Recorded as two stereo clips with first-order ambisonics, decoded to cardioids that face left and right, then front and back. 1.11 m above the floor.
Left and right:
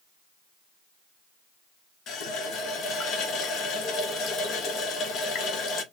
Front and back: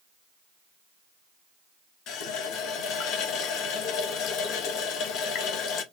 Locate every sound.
2.1 s a running tap: 40° left, 1.0 m